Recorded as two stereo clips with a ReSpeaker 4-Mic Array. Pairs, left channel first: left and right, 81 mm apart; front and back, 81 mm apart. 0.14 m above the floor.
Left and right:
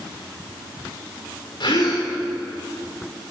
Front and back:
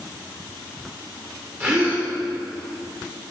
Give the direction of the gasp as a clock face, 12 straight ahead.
8 o'clock.